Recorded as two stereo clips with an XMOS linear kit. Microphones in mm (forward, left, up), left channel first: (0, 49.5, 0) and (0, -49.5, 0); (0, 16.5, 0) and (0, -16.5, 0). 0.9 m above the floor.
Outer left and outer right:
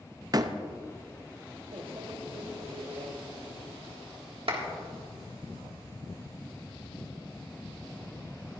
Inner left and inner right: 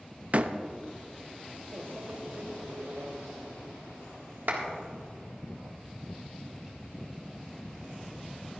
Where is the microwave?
65° right (ahead or behind), 1.1 m.